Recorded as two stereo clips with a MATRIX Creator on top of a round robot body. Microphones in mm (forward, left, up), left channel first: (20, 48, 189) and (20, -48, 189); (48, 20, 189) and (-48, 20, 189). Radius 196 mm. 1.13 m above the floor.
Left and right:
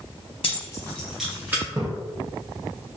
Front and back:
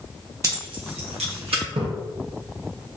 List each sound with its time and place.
0.4 s keys jangling: 120° left, 1.0 m; by 1.6 s 160° right, 1.7 m
1.8 s a splash: 155° right, 0.8 m